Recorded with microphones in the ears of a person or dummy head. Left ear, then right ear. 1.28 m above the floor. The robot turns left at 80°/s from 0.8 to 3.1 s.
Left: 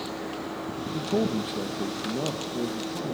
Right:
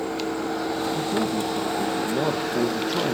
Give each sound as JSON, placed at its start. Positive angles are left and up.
{"t": 0.9, "sound": "a man speaking", "azimuth_deg": 70, "distance_m": 0.8}